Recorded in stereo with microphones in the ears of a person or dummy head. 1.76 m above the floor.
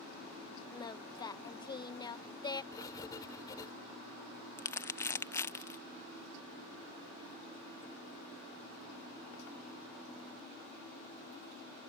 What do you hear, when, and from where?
0.7 s singing: 25° left (ahead or behind)
2.7 s writing: 20° left (ahead or behind)
4.6 s crumpling: 15° left (ahead or behind)